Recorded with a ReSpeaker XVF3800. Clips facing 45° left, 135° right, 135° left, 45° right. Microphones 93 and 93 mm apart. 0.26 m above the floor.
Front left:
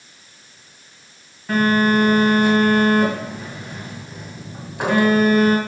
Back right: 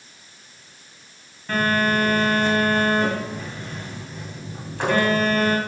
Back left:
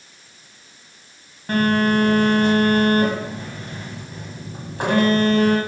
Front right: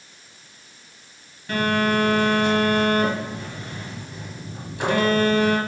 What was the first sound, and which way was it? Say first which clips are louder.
A phone buzzing: front left 4 dB, back left 3 dB; 125° left.